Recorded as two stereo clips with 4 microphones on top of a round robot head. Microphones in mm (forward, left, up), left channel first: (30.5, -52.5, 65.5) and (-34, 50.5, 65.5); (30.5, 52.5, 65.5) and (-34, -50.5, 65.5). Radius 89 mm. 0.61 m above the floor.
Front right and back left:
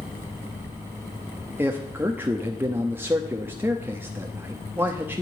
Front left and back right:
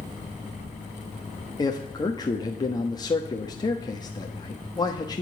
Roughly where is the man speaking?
Ahead left.